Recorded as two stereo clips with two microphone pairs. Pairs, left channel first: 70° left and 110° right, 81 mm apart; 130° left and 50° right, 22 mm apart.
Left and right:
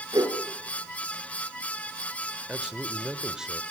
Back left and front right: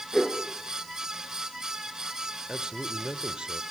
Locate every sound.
0.1 s a whoosh: 150° right, 4.5 m
2.5 s a man speaking: 35° right, 1.3 m